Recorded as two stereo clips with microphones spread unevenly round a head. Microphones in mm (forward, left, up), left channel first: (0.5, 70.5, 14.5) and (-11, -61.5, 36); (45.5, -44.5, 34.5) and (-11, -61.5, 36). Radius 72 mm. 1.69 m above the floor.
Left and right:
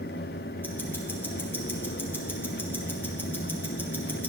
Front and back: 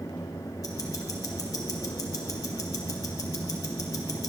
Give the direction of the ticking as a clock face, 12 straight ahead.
12 o'clock.